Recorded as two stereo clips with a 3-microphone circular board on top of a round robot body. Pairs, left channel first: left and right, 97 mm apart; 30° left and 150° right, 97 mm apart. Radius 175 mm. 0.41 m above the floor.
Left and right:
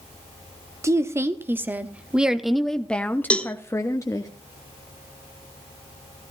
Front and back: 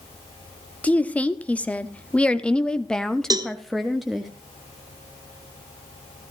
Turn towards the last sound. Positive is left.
turn(degrees=165)